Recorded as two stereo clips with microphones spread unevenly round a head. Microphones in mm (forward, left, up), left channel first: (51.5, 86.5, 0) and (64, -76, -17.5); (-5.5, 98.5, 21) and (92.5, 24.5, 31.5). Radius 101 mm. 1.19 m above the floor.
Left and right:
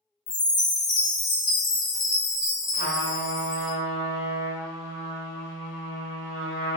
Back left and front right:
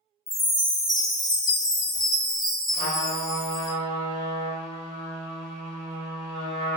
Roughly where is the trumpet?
Left.